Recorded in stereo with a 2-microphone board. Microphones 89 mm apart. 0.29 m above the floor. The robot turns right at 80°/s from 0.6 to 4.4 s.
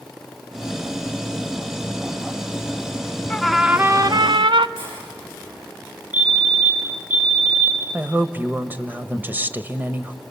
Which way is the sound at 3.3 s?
165° left.